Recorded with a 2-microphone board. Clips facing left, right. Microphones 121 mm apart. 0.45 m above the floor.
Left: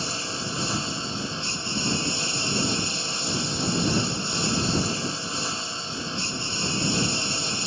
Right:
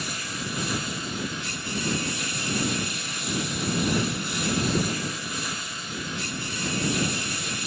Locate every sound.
0.0 s a lawn mower: 30° left (ahead or behind)